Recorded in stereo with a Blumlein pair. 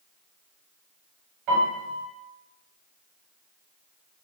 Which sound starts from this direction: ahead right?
A piano, at 1.5 s.